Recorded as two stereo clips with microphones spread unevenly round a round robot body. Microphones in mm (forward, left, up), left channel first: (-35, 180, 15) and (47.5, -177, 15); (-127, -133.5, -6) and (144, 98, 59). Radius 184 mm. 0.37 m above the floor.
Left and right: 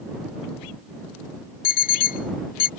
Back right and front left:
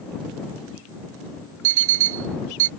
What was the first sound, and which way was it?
An alarm clock, 35° left.